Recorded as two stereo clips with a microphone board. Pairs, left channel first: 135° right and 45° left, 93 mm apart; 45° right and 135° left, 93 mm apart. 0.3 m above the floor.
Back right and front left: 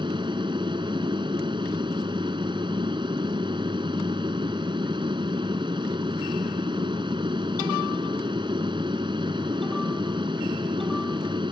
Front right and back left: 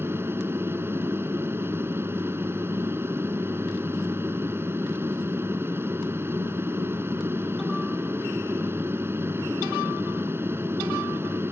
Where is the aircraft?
70° left.